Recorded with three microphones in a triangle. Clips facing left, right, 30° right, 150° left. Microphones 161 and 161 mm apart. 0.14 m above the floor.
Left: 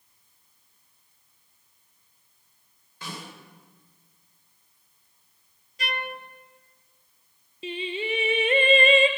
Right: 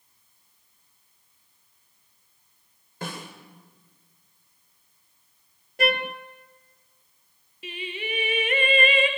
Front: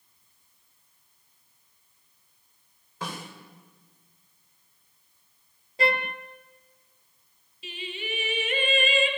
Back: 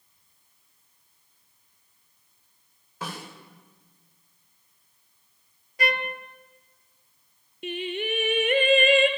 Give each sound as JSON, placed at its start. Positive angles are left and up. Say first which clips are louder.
{"t": 3.0, "sound": "a snare drum", "louder": "right 4 dB, even", "azimuth_deg": -125, "distance_m": 8.5}
{"t": 5.8, "sound": "a trumpet", "louder": "right 9 dB, front 2 dB", "azimuth_deg": -90, "distance_m": 1.1}
{"t": 7.6, "sound": "singing", "louder": "left 5 dB, back 8 dB", "azimuth_deg": 145, "distance_m": 1.7}